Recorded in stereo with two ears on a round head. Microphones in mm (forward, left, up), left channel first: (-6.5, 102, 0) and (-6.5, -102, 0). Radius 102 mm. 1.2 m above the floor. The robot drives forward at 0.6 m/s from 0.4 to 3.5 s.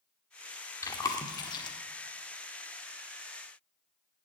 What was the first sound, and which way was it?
Chewing, 15° left (ahead or behind).